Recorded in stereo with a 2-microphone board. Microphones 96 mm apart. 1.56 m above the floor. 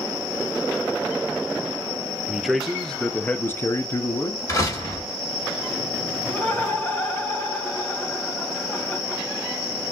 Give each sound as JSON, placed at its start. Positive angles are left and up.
{"t": 2.3, "sound": "a man speaking", "side_deg": -5, "distance_m": 0.8}
{"t": 4.5, "sound": "a door slam", "side_deg": 35, "distance_m": 2.5}
{"t": 6.2, "sound": "laughter", "side_deg": 20, "distance_m": 1.9}